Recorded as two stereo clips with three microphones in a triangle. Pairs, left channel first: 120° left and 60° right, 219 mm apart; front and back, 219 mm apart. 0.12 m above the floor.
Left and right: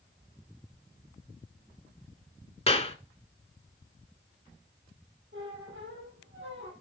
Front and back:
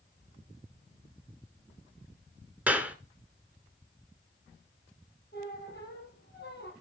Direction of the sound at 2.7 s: 105° left.